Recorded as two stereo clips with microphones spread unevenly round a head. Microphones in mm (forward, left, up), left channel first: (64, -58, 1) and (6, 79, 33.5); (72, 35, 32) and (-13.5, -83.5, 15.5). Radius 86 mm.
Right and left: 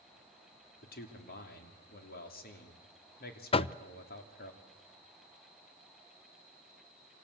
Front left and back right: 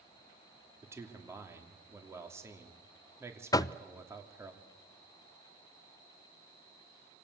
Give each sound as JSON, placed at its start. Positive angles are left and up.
{"t": 0.8, "sound": "a man speaking", "azimuth_deg": -55, "distance_m": 3.0}
{"t": 3.5, "sound": "knocking", "azimuth_deg": -15, "distance_m": 0.5}